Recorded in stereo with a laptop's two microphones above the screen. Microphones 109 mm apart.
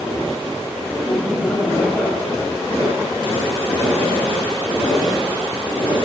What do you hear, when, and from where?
0.9 s laughter: 5° right (ahead or behind), 4.5 m; by 2.7 s 10° left (ahead or behind), 6 m